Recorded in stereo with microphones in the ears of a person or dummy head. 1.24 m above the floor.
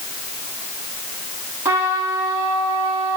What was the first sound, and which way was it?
A trumpet, 15° right (ahead or behind).